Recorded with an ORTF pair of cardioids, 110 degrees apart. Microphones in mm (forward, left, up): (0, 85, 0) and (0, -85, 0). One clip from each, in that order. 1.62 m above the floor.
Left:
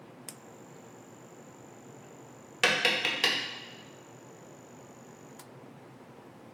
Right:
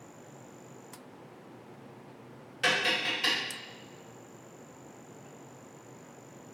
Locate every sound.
2.6 s tapping: 55° left, 0.8 m